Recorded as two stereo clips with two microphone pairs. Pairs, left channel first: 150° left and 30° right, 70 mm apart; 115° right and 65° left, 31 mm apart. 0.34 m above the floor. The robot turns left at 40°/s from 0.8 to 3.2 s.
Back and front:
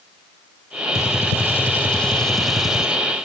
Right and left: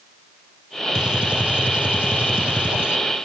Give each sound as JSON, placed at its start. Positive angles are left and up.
{"t": 0.9, "sound": "a gunshot", "azimuth_deg": 125, "distance_m": 1.3}